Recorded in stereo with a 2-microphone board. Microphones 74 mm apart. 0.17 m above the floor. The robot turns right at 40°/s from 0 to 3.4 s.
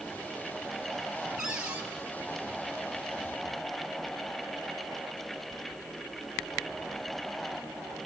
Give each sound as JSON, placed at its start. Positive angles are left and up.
{"t": 1.4, "sound": "a cupboard door", "side_deg": -5, "distance_m": 2.5}